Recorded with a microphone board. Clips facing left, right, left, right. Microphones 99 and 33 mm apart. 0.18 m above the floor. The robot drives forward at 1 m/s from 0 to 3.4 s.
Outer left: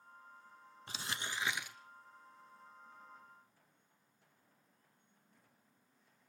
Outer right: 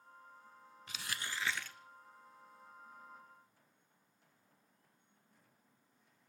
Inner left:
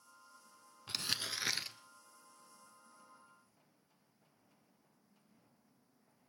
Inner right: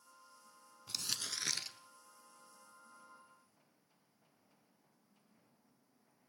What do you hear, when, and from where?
0.9 s crumpling: 35° left (ahead or behind), 0.5 m; by 1.8 s 15° left (ahead or behind), 1.2 m